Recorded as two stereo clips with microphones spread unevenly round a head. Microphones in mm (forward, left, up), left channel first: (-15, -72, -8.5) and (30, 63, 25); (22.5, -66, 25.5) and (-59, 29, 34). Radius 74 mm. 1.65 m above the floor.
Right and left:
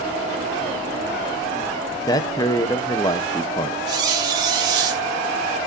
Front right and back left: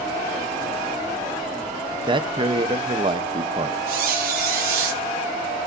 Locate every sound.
1.9 s a man speaking: straight behind, 1.2 m
3.9 s a squeak: 135° left, 3.5 m